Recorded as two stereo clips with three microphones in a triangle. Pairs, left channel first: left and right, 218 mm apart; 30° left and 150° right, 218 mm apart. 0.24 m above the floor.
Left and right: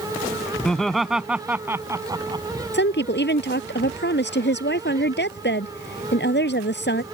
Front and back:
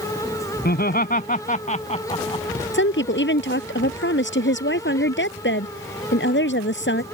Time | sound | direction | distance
0.7 | laughter | 5° left | ?
2.7 | a woman speaking | 55° left | ?